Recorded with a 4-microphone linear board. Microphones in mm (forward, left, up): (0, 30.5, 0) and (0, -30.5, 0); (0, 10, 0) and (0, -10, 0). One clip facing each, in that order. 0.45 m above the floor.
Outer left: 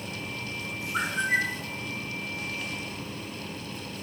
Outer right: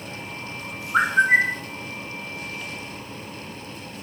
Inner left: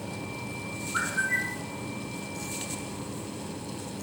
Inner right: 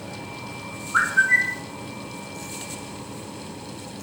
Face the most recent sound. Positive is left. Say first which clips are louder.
# outer right 9 dB, inner right 10 dB
turn(degrees=-45)  # may be behind; listen again after turning